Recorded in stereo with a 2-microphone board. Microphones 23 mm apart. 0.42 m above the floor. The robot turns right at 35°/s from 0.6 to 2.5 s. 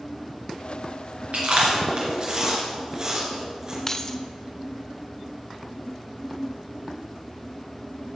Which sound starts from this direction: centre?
Keys jangling, at 3.9 s.